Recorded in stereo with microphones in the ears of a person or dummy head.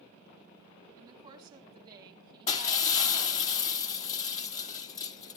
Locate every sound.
0.9 s a woman speaking: 25° right (ahead or behind), 3 m; by 3.5 s 35° right (ahead or behind), 1.8 m
2.5 s breaking glass: 40° left (ahead or behind), 2 m